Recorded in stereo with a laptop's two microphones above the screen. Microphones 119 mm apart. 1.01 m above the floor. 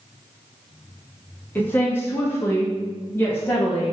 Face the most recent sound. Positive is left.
turn(degrees=15)  # may be behind; listen again after turning